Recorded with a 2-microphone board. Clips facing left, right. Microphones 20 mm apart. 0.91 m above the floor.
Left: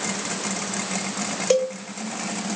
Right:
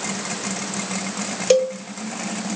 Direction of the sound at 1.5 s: 20° right (ahead or behind).